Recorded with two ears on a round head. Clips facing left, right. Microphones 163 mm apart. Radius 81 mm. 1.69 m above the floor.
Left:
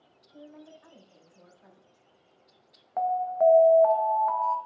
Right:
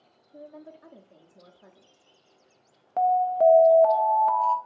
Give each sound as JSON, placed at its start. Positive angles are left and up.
{"t": 0.3, "sound": "a woman speaking", "side_deg": -60, "distance_m": 0.7}
{"t": 3.0, "sound": "an alarm", "side_deg": -40, "distance_m": 0.6}